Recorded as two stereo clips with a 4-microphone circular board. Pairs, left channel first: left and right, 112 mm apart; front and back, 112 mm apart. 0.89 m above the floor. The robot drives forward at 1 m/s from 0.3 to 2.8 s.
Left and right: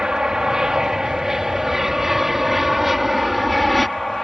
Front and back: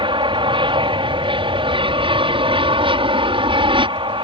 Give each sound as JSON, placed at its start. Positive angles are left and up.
{"t": 0.0, "sound": "an aircraft", "azimuth_deg": -175}